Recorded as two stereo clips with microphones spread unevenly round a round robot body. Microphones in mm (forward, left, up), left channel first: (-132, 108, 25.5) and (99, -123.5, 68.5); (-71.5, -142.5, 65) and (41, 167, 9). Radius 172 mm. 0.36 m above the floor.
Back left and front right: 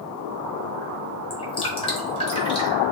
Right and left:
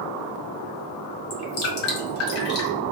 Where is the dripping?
160° right, 1.1 m.